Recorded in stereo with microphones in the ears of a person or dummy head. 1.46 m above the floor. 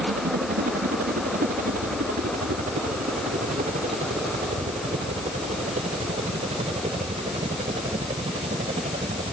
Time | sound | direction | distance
0.0 | a helicopter | 55° right (ahead or behind) | ?